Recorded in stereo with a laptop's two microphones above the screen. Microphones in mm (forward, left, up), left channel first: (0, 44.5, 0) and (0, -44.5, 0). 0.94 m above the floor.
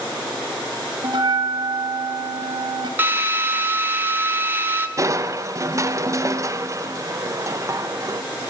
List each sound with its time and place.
1.0 s a bell: 55° right (ahead or behind), 1.5 m
3.0 s a drill: 20° right (ahead or behind), 1.3 m
5.0 s crushing: 35° right (ahead or behind), 0.5 m